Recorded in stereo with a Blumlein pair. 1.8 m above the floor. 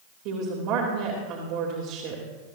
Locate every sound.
0.2 s a woman speaking: 40° right, 2.5 m